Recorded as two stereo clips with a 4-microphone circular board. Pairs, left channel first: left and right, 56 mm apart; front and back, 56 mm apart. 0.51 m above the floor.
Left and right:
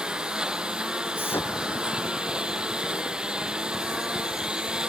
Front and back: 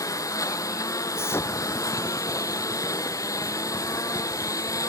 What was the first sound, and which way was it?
A lawn mower, 15° right.